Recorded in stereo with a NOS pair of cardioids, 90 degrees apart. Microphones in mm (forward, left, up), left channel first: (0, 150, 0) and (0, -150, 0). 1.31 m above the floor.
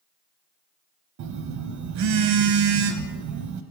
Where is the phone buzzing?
65° right, 0.7 m.